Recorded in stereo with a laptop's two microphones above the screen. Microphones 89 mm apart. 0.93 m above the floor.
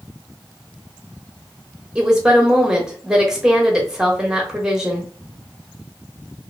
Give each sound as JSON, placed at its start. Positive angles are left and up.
{"t": 1.9, "sound": "a woman speaking", "side_deg": -5, "distance_m": 1.0}